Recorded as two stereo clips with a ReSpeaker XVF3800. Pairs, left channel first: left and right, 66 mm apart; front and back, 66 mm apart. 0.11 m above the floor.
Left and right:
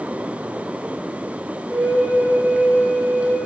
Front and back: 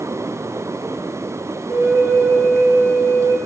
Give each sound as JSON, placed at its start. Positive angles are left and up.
{"t": 1.7, "sound": "a flute", "azimuth_deg": 125, "distance_m": 1.9}